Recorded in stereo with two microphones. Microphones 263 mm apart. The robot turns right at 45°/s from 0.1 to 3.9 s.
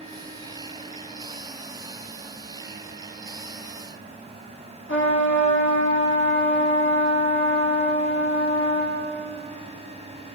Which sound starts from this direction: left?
A trumpet, at 4.9 s.